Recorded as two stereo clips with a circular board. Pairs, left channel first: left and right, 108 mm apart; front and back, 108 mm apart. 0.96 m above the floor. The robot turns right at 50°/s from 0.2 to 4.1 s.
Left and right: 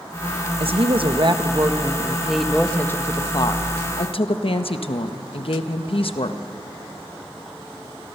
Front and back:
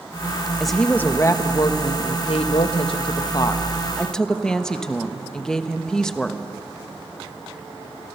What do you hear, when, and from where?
0.6 s a woman speaking: 90° right, 0.8 m; by 6.4 s 85° left, 0.8 m